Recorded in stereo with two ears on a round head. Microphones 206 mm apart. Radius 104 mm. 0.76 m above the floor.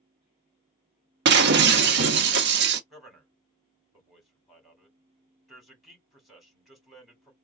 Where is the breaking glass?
50° right (ahead or behind), 1.0 m.